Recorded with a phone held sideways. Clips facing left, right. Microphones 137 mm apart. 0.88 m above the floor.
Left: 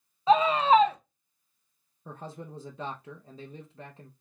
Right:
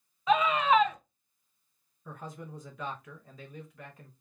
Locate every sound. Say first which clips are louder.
0.3 s a scream: left 4 dB; 30° left (ahead or behind), 0.5 m
2.0 s a man speaking: left 2 dB; 30° left (ahead or behind), 0.6 m